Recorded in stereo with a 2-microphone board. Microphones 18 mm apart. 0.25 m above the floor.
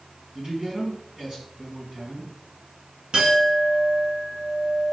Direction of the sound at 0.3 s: 35° right (ahead or behind).